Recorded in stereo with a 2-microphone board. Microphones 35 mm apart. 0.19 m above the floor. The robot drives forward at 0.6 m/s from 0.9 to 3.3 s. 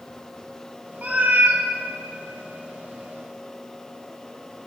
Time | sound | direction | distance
1.0 | a cat meowing | 50° right (ahead or behind) | 0.6 m